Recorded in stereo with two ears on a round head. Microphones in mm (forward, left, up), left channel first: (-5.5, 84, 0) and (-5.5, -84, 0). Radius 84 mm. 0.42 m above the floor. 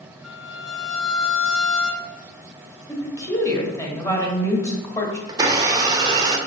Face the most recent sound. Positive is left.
turn(degrees=-20)  # may be behind; listen again after turning